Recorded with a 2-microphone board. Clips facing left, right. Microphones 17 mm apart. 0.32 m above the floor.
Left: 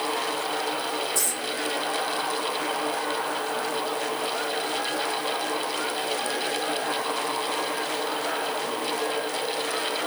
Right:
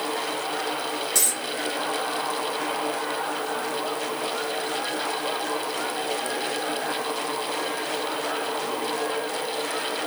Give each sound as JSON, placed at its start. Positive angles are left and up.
{"t": 1.1, "sound": "a dropped coin", "side_deg": -80, "distance_m": 2.5}